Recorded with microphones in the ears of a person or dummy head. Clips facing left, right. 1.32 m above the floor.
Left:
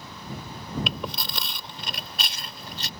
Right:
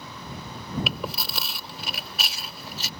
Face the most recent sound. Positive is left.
turn(degrees=-5)  # may be behind; listen again after turning